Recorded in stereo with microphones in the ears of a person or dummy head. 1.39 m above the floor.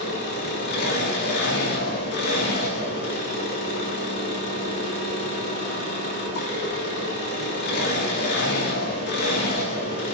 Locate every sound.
0.0 s an engine running: 50° left (ahead or behind), 1.7 m